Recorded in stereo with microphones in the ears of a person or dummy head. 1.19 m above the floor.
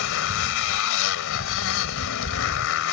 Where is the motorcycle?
75° left (ahead or behind).